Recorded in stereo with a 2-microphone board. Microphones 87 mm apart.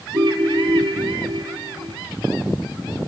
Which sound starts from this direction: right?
A ringtone, at 0.1 s.